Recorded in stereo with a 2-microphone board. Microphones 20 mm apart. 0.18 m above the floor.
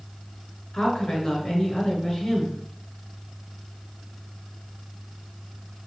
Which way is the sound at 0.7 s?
25° left (ahead or behind).